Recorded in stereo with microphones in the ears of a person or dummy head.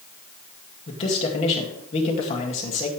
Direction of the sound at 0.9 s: 35° left (ahead or behind).